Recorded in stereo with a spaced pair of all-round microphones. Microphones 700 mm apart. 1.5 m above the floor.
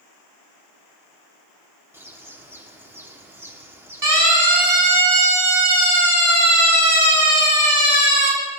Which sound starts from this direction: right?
A siren, at 4.0 s.